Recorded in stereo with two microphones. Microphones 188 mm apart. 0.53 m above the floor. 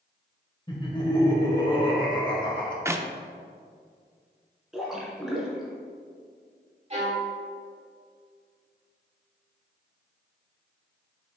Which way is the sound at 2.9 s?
15° right (ahead or behind).